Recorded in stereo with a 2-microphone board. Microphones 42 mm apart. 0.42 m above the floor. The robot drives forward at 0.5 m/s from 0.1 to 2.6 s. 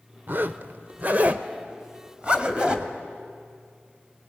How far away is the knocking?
I don't hear knocking.